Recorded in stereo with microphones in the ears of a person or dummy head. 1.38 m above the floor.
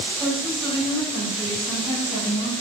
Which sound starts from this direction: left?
A woman speaking, at 0.2 s.